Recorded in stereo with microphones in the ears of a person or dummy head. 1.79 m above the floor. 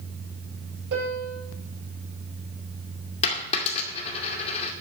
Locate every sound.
0.9 s a piano: 65° right (ahead or behind), 6.5 m
3.2 s a dropped coin: 35° left (ahead or behind), 2.5 m